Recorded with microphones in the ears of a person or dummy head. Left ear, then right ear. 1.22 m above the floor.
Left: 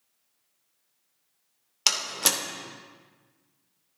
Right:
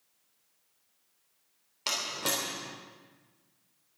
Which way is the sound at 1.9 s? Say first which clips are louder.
Left 6 dB; 50° left (ahead or behind).